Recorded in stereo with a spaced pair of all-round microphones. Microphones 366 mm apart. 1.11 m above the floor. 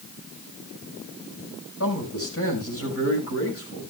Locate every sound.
1.8 s a man speaking: 40° left (ahead or behind), 6 m